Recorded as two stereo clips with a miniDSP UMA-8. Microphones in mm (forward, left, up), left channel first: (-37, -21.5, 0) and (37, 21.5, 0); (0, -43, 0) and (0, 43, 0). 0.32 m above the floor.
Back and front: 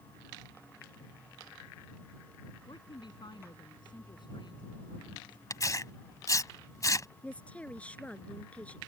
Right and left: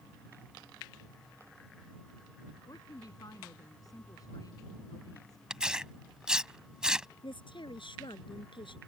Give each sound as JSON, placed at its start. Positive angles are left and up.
{"t": 2.7, "sound": "a woman speaking", "azimuth_deg": -130}
{"t": 5.5, "sound": "tearing paper", "azimuth_deg": 170}
{"t": 7.2, "sound": "a woman speaking", "azimuth_deg": -75}